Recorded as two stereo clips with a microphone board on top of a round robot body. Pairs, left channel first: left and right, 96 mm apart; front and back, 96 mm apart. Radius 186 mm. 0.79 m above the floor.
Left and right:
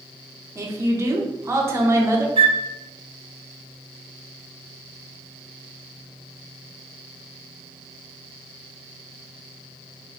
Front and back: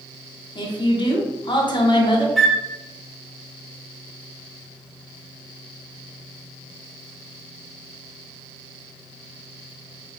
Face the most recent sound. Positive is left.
turn(degrees=-90)